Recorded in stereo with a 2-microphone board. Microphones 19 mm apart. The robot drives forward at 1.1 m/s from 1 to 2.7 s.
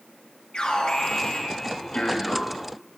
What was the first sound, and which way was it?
An alarm, 55° left (ahead or behind).